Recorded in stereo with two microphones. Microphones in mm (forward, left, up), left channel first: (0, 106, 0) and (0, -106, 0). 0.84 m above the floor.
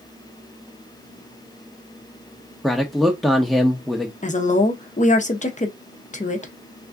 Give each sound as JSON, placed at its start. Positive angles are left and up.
{"t": 2.6, "sound": "a man speaking", "side_deg": 0, "distance_m": 0.6}
{"t": 4.2, "sound": "a woman speaking", "side_deg": 35, "distance_m": 0.7}